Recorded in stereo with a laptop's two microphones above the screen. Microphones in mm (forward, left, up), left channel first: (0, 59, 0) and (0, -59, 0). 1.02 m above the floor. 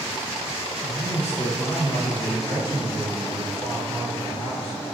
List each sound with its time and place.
0.8 s a man speaking: 65° left (ahead or behind), 1.7 m; by 4.8 s 5° left (ahead or behind), 1.2 m